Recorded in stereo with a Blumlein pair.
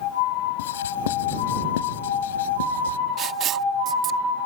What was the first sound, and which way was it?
Writing, 60° left.